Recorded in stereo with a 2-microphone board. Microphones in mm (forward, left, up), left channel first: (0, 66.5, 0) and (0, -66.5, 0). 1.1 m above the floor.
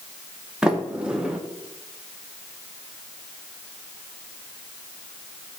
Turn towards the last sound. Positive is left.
turn(degrees=-5)  # may be behind; listen again after turning